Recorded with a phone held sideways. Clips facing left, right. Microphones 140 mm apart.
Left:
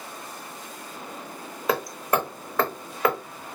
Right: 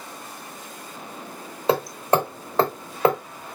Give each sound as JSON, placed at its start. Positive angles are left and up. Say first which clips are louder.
{"t": 1.7, "sound": "hammering", "louder": "right 4 dB", "side_deg": -30, "distance_m": 0.7}